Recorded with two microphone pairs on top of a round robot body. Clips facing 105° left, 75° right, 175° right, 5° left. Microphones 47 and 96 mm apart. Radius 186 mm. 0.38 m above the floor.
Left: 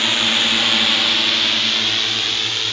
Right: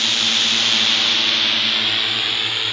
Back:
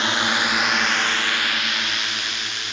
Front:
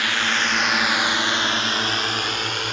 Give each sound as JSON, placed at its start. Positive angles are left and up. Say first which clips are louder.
{"t": 0.0, "sound": "a drone", "louder": "left 2 dB, back 1 dB", "azimuth_deg": 150}